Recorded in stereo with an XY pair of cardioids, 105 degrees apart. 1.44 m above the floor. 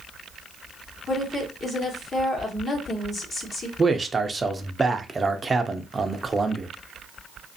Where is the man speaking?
20° right, 0.5 m.